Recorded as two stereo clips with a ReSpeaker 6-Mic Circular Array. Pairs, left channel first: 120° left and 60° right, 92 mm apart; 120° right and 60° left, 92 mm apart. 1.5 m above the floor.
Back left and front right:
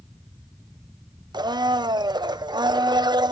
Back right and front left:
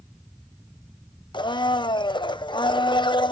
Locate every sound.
1.3 s a blender: 95° right, 0.7 m